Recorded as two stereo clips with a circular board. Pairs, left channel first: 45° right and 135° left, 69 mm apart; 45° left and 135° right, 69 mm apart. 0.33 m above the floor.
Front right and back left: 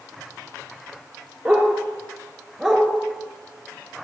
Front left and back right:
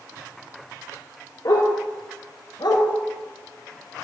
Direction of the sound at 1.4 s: 65° left.